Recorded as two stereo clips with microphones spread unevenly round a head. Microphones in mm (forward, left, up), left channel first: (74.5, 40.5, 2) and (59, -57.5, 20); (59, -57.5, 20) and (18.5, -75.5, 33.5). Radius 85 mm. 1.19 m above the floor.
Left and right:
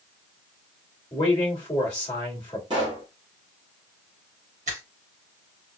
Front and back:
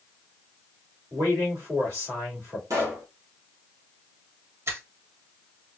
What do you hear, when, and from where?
1.1 s a man speaking: 145° left, 2.5 m
2.7 s a pop: 165° right, 1.8 m
4.7 s a finger snap: 135° right, 2.5 m